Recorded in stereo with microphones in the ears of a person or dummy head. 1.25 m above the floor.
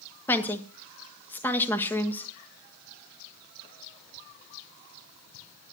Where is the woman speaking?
15° left (ahead or behind), 1.7 m.